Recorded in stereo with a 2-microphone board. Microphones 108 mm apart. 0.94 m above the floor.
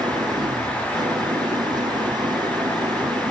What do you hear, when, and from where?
0.0 s an engine running: 40° right (ahead or behind)